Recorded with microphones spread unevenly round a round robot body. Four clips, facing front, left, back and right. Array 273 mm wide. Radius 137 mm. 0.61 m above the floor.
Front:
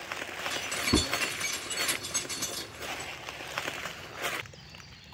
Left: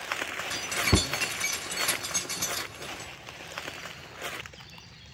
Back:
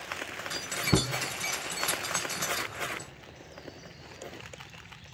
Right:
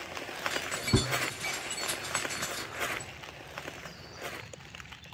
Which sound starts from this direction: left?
Keys jangling, at 0.5 s.